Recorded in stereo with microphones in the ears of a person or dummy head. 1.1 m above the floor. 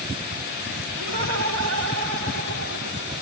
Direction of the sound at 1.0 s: 65° right (ahead or behind).